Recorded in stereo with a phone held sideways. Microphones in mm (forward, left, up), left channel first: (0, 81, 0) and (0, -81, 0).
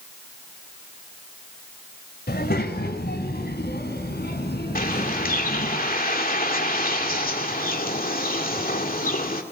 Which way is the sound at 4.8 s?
60° left (ahead or behind).